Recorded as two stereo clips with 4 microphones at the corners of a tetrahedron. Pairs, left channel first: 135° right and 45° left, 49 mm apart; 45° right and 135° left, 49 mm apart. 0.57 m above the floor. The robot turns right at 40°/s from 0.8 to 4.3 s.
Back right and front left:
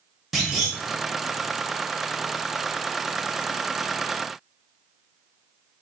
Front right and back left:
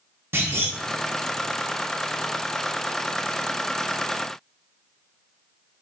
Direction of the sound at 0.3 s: 130° left.